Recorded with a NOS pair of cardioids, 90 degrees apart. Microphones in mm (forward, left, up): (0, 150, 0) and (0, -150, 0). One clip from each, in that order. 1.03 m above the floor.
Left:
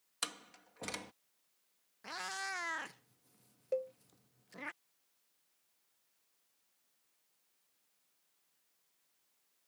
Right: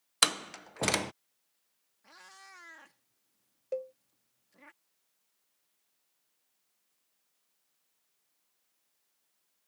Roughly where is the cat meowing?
Ahead left.